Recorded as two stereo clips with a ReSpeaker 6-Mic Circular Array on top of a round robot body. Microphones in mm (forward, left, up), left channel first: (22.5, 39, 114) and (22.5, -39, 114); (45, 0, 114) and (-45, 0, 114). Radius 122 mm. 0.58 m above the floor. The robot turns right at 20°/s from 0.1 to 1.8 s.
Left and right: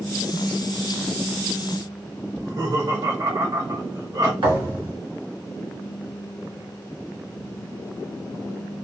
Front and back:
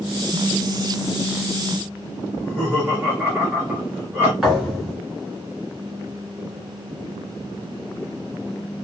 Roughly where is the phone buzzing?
Behind.